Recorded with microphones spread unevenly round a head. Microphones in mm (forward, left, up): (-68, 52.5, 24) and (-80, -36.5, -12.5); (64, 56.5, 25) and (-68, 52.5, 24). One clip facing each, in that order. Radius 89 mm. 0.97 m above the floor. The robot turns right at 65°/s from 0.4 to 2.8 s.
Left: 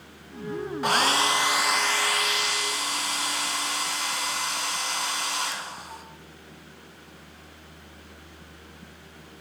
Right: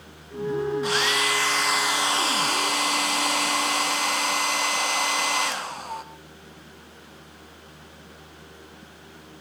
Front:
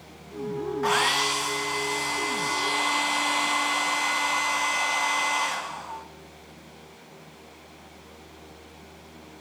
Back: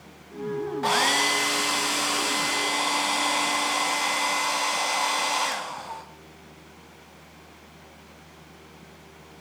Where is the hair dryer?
120° left, 1.0 m; by 6.0 s 115° right, 1.0 m.